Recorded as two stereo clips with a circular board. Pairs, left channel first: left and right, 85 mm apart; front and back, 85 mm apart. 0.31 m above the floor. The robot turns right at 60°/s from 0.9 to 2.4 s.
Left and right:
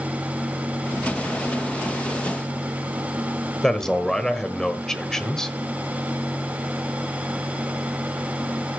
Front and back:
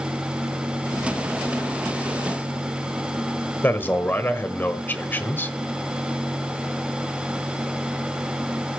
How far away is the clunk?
I don't hear a clunk.